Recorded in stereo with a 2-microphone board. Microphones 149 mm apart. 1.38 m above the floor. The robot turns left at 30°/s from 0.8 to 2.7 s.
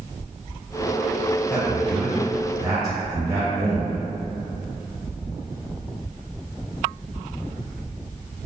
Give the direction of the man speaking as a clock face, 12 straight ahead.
12 o'clock.